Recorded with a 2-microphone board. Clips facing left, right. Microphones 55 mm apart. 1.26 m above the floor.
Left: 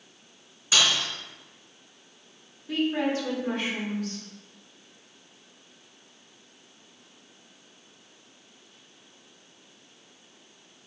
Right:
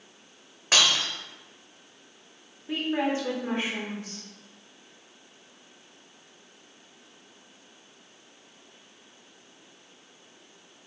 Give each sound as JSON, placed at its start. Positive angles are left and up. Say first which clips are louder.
{"t": 0.7, "sound": "breaking glass", "louder": "right 1 dB", "side_deg": -55, "distance_m": 1.5}
{"t": 2.7, "sound": "a woman speaking", "louder": "left 1 dB", "side_deg": -20, "distance_m": 1.8}